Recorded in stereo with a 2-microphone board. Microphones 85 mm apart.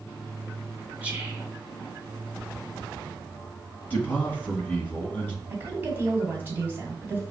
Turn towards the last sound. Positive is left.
turn(degrees=-25)  # may be behind; listen again after turning